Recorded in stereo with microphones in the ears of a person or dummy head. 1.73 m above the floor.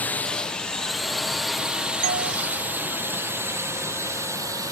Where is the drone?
10° left (ahead or behind); by 4.7 s 15° right (ahead or behind).